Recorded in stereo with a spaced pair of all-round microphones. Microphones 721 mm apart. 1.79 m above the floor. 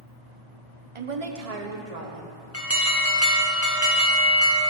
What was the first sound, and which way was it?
A woman speaking, 45° right (ahead or behind).